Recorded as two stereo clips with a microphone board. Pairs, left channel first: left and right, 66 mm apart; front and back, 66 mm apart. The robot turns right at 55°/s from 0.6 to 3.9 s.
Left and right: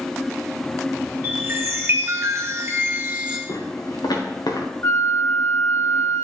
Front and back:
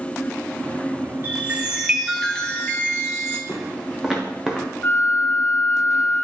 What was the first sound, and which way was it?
A chime, 135° right.